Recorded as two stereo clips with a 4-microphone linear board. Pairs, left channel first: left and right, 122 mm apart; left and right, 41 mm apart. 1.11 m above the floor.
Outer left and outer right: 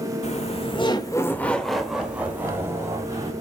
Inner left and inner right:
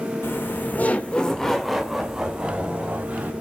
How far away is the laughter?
About 2.0 m.